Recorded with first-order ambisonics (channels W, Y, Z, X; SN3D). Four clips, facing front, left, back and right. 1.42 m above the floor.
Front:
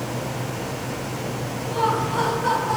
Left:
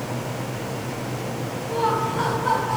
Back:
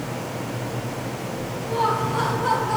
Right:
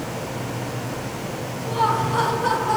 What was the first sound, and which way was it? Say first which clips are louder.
Laughter: right 2 dB, even; 85° right.